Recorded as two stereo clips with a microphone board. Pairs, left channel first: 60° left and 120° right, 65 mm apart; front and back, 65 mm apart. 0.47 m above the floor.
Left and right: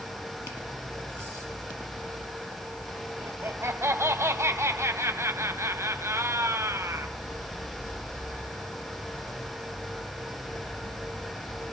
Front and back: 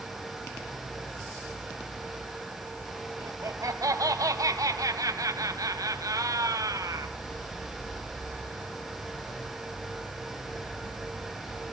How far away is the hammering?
I don't hear hammering.